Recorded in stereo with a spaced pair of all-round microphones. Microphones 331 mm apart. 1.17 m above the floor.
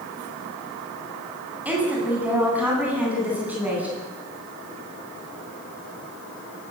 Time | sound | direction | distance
1.6 | a woman speaking | 5° right (ahead or behind) | 10 m